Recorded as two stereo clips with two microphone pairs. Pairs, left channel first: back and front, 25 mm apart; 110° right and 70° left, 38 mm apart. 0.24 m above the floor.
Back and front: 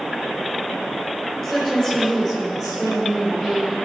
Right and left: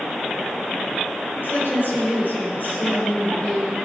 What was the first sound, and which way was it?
A woman speaking, 85° right.